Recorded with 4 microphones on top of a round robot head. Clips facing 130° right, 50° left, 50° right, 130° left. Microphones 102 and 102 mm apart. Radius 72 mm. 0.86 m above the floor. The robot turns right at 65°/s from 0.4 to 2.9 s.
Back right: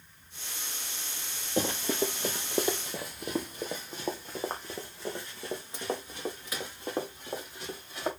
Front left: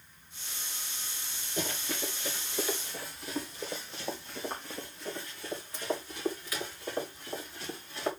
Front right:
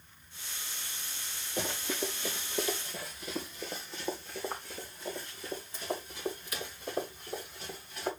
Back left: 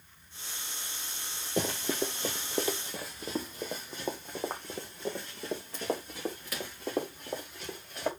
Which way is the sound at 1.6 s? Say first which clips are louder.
Back right 7 dB, back left 4 dB; 170° left.